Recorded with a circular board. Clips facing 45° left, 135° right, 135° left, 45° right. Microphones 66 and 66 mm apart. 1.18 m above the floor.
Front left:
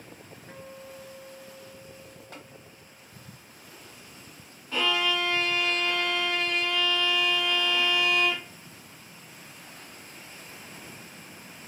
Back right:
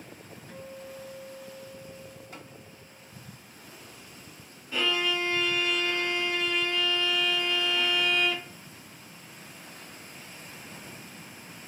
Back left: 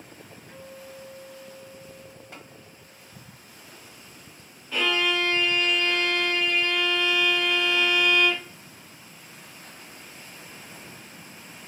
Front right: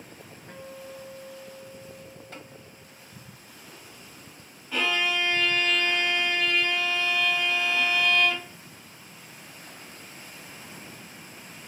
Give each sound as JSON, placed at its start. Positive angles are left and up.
{"t": 0.5, "sound": "a guitar", "azimuth_deg": -5, "distance_m": 0.6}
{"t": 2.3, "sound": "tapping", "azimuth_deg": 55, "distance_m": 1.3}
{"t": 4.7, "sound": "a violin", "azimuth_deg": 45, "distance_m": 1.7}